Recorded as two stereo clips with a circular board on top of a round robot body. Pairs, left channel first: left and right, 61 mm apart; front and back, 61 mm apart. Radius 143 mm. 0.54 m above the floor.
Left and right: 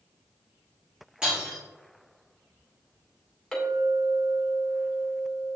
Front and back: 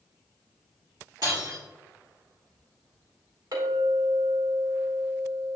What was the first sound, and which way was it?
Breaking glass, 170° right.